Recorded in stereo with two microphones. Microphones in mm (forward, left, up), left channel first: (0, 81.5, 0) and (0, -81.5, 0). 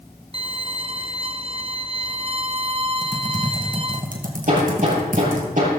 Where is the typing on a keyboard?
55° right (ahead or behind), 1.9 m.